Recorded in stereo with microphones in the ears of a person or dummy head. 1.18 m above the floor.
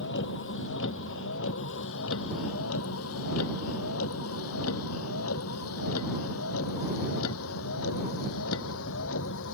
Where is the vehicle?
65° left (ahead or behind); by 9.6 s 75° left (ahead or behind).